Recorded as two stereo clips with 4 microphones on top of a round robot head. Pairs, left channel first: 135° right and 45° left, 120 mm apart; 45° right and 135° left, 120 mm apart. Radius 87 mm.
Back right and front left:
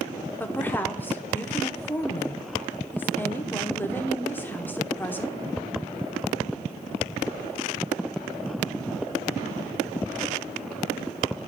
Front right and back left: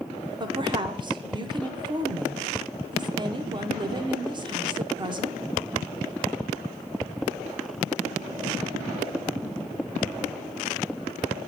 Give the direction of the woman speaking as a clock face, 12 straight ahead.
7 o'clock.